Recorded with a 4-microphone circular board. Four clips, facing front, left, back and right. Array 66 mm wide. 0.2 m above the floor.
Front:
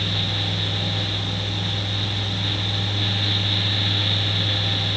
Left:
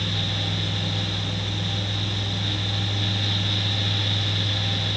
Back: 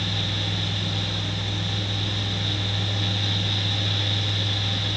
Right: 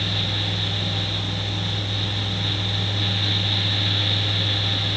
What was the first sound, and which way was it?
Only background noise.